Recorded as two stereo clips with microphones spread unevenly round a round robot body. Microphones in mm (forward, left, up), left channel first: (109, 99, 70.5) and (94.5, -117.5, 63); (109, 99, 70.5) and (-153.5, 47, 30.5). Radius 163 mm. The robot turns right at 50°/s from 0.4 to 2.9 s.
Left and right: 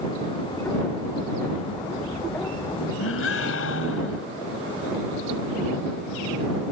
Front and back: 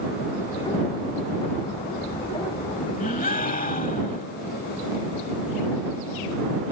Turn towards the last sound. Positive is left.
turn(degrees=70)